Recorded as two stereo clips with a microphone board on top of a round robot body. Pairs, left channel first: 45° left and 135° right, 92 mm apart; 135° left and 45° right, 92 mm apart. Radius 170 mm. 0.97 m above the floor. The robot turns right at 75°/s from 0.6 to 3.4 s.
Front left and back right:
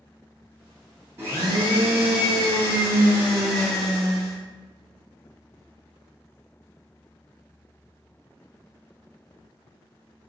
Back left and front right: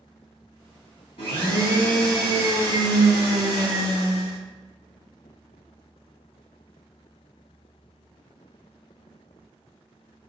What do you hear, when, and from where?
1.2 s a blender: 160° left, 0.6 m; by 4.4 s 35° right, 0.6 m